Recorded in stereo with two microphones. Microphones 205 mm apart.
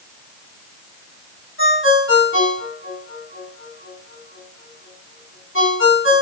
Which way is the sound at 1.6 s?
85° left.